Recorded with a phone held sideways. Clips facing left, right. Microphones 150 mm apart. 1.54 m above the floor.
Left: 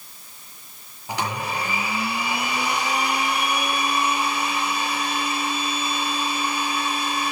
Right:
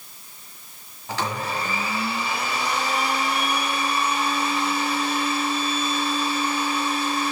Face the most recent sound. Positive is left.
turn(degrees=15)  # may be behind; listen again after turning